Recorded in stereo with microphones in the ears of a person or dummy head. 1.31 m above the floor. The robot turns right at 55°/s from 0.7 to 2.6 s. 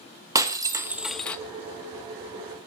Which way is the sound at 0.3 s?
15° right.